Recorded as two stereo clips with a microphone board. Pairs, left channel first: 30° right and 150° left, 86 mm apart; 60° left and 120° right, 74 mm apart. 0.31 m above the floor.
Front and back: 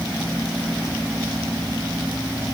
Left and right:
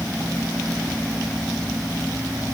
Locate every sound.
Only background noise.